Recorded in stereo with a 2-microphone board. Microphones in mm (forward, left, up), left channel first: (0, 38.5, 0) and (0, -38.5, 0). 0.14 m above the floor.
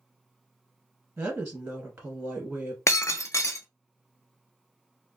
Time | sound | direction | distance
1.2 | a woman speaking | 20° right (ahead or behind) | 1.3 m
2.9 | breaking glass | 40° left (ahead or behind) | 0.5 m